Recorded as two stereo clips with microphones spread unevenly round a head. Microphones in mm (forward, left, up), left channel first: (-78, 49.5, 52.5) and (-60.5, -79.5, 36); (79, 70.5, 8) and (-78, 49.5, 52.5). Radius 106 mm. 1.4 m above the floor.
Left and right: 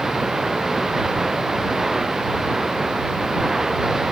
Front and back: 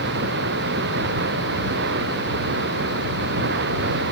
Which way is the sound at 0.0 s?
170° right.